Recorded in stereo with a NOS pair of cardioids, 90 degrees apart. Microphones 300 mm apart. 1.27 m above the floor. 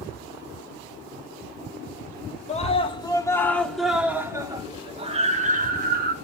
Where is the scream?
20° left, 3 m; by 6.1 s 30° right, 3.5 m.